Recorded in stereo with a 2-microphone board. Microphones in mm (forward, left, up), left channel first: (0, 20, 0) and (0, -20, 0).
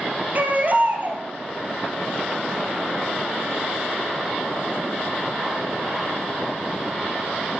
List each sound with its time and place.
0.3 s a baby crying: 45° right (ahead or behind), 1.7 m